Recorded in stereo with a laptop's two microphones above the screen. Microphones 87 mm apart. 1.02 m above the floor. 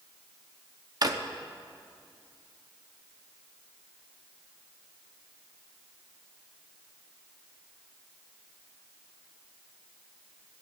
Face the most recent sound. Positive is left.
turn(degrees=-50)  # may be behind; listen again after turning